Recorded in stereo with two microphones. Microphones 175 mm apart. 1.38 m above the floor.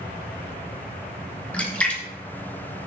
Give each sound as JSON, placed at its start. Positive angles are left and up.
{"t": 1.5, "sound": "a splash", "side_deg": 5, "distance_m": 1.6}